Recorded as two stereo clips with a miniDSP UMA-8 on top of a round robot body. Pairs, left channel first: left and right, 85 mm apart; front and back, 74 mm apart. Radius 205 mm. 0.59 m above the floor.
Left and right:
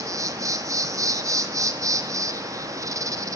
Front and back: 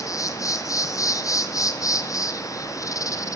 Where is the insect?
40° right, 0.8 m.